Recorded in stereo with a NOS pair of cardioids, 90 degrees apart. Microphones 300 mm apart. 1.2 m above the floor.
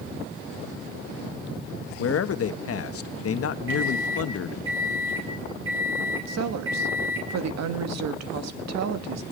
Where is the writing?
No writing in this recording.